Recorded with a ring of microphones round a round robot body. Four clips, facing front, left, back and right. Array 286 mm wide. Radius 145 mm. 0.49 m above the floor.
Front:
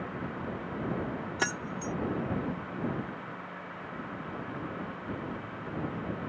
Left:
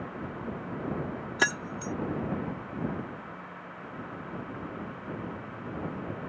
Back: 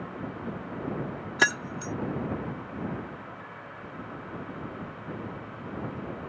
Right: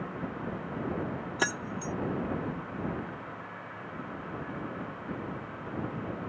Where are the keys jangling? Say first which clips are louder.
Left 3 dB, back 8 dB; 160° left.